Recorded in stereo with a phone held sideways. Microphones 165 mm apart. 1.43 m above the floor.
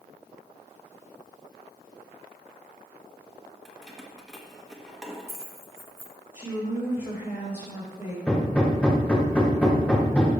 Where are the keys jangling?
Centre (ahead or behind), 1.2 m.